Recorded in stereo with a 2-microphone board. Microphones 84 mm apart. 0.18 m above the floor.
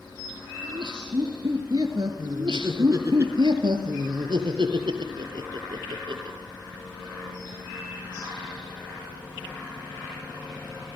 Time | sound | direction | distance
0.6 | laughter | 60° right (ahead or behind) | 3 m
2.3 | laughter | 70° right (ahead or behind) | 3.5 m